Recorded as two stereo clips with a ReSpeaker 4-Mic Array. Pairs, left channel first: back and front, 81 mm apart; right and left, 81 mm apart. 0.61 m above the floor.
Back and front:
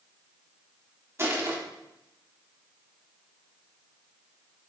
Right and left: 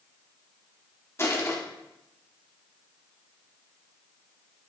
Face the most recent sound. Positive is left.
turn(degrees=-45)